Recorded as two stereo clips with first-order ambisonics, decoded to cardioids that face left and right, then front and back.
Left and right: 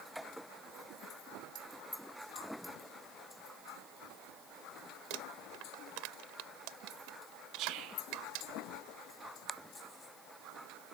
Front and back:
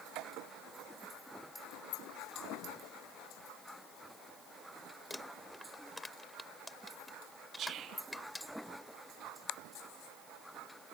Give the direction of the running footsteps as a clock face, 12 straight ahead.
No running footsteps in this recording.